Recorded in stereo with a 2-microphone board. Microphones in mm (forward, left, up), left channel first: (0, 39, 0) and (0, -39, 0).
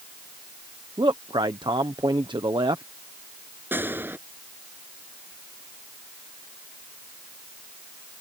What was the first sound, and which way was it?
A man speaking, 75° right (ahead or behind).